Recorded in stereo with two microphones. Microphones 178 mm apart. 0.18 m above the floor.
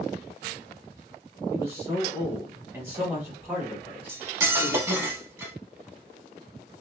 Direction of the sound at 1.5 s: 15° right (ahead or behind).